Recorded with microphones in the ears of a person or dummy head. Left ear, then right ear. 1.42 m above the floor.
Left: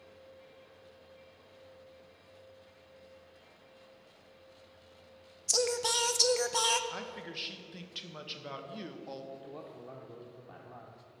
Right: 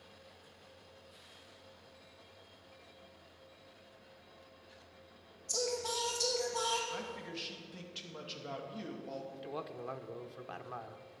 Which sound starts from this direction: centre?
A man speaking, at 6.9 s.